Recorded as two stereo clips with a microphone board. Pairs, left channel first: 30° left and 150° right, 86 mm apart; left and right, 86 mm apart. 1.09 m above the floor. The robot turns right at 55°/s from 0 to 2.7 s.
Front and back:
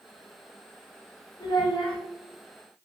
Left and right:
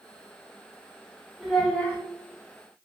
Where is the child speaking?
5° right, 0.8 m; by 2.0 s 30° left, 0.8 m.